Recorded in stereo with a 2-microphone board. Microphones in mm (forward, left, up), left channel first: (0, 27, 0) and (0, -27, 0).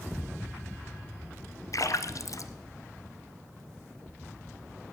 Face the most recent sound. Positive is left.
turn(degrees=70)  # may be behind; listen again after turning